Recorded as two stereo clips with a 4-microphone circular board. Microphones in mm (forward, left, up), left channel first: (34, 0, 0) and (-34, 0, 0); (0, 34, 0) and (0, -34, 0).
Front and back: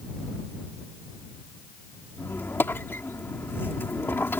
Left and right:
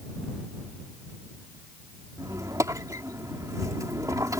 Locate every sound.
2.2 s a squeak: 55° right